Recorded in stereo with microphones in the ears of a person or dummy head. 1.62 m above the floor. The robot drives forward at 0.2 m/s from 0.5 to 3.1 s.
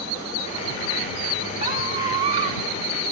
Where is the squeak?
40° right (ahead or behind), 3 m.